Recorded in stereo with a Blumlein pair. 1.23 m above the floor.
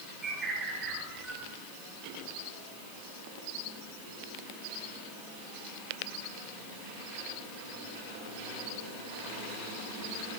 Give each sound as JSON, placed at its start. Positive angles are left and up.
{"t": 0.2, "sound": "a bird", "azimuth_deg": -20, "distance_m": 4.5}